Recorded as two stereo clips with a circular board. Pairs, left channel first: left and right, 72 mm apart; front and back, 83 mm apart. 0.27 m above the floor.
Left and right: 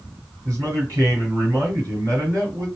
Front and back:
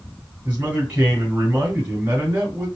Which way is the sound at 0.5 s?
115° right.